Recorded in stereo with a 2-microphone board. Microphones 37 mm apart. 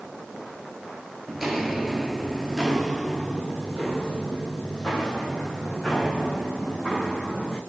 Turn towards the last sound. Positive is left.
turn(degrees=5)  # may be behind; listen again after turning